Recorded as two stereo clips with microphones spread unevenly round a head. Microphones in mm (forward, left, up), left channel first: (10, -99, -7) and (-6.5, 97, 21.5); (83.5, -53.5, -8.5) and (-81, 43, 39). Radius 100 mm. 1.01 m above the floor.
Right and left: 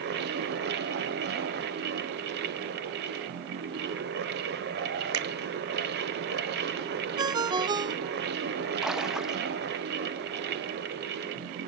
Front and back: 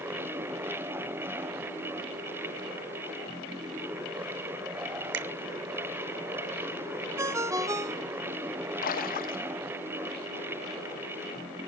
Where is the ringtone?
120° left, 0.6 m.